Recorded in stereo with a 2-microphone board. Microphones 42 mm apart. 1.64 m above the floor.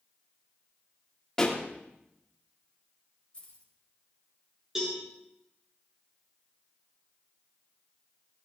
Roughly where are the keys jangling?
Left.